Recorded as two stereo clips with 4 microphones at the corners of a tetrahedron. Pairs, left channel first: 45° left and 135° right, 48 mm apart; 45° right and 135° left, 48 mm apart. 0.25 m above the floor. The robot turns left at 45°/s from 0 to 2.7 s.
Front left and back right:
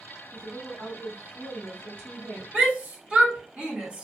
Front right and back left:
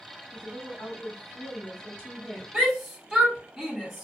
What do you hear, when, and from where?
0.3 s a woman speaking: 20° right, 2.5 m; by 2.4 s 115° right, 2.5 m
2.5 s a shout: 135° right, 1.7 m; by 4.0 s 145° right, 1.7 m